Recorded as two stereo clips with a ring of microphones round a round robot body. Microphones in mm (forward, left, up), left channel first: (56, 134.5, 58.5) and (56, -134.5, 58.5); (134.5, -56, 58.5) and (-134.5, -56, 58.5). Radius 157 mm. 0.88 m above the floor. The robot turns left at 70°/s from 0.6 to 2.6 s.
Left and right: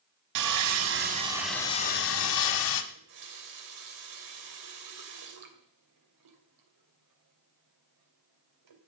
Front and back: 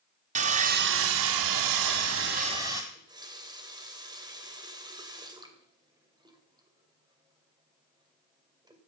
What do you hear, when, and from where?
0.3 s sawing: 120° right, 1.3 m; by 2.8 s 100° left, 1.3 m
2.9 s a running tap: 105° right, 2.5 m